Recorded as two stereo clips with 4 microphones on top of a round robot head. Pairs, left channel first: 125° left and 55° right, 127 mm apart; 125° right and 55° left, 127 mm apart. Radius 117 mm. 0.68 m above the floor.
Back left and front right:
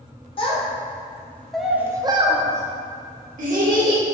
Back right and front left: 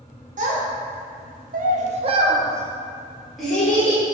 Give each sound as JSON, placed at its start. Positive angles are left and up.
{"t": 0.4, "sound": "a child speaking", "azimuth_deg": 80, "distance_m": 0.9}